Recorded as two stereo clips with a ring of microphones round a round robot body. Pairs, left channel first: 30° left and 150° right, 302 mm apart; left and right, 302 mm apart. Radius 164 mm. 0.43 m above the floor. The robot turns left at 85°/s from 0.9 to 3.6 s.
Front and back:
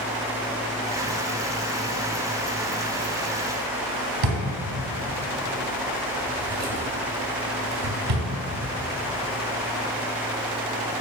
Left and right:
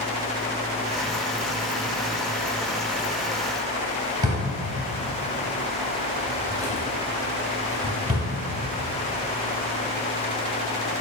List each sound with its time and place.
4.2 s a drawer: 170° right, 0.6 m